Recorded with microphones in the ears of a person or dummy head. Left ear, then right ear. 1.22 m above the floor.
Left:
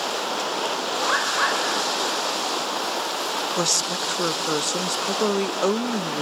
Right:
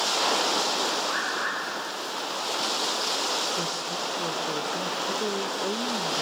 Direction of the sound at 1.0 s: 60° left (ahead or behind).